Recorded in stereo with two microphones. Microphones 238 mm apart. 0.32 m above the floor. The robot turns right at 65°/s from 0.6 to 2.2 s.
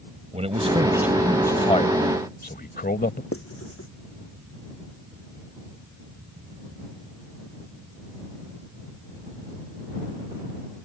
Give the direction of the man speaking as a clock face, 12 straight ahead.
1 o'clock.